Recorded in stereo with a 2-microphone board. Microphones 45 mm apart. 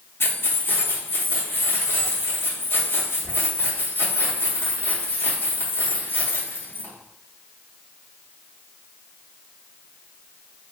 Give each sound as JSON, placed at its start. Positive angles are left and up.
{"t": 0.2, "sound": "keys jangling", "side_deg": 55, "distance_m": 0.8}